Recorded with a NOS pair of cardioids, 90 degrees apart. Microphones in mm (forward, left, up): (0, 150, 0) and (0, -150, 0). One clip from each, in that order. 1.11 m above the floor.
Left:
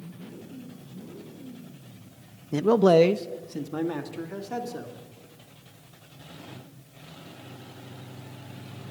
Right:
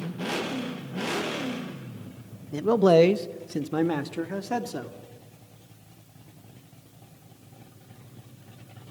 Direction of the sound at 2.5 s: 25° left.